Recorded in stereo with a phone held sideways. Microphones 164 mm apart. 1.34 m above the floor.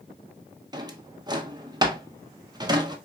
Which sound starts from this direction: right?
A drawer, at 0.7 s.